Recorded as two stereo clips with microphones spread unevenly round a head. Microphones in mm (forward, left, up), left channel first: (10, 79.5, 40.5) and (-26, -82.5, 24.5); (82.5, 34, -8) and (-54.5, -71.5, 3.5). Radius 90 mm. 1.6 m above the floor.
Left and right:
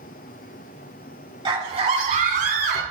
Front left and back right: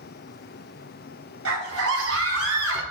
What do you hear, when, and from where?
1.4 s a scream: 160° right, 1.9 m; by 2.8 s 130° right, 2 m